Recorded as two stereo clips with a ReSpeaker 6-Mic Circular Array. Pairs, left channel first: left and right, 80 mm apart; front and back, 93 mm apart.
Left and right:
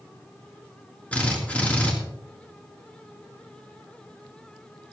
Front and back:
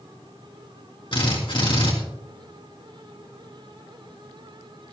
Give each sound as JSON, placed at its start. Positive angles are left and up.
{"t": 1.1, "sound": "a drill", "azimuth_deg": 15, "distance_m": 3.0}